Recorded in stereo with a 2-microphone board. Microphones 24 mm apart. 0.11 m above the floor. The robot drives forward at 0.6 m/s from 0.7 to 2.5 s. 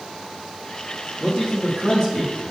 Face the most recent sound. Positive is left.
turn(degrees=40)  # may be behind; listen again after turning